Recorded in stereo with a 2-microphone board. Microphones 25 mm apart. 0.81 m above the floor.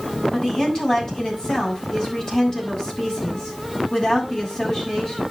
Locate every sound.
0.3 s a woman speaking: 30° left (ahead or behind), 7 m